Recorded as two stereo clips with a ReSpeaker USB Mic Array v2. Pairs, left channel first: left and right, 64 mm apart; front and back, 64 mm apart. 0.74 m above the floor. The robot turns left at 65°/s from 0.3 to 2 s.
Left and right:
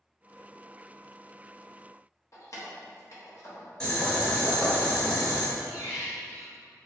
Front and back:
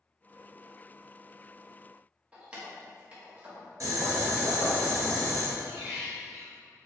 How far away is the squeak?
About 1.1 m.